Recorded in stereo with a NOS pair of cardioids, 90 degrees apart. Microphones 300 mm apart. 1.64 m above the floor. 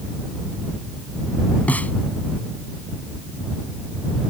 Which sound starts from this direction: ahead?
A snare drum, at 1.7 s.